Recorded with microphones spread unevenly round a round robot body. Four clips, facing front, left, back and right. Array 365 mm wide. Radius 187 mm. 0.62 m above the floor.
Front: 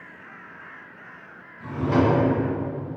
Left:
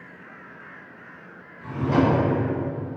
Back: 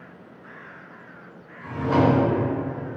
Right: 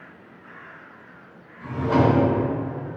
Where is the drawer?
45° right, 2.0 m.